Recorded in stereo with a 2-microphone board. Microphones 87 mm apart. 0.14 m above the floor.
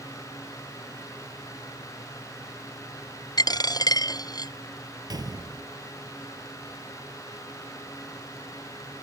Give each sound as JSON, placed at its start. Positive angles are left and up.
{"t": 3.4, "sound": "a dropped coin", "side_deg": 50}
{"t": 5.1, "sound": "a gunshot", "side_deg": -50}